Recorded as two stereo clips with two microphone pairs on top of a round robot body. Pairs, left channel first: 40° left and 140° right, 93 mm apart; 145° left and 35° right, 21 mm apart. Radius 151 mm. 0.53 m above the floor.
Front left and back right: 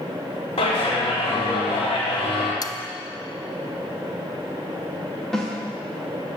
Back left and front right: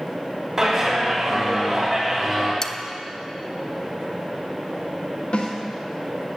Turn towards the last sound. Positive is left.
turn(degrees=130)